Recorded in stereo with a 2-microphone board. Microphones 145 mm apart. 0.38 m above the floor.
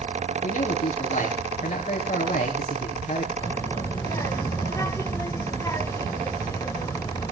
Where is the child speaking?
20° left (ahead or behind), 1.1 m.